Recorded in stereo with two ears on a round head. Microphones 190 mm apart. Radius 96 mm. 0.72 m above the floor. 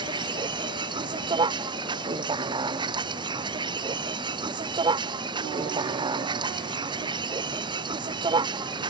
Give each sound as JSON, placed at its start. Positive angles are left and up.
{"t": 0.0, "sound": "a vehicle", "side_deg": -20}